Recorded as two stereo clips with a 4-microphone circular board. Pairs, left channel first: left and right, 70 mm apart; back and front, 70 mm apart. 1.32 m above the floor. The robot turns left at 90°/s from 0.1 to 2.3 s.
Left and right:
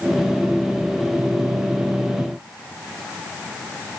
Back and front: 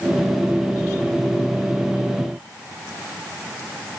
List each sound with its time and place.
Only background noise.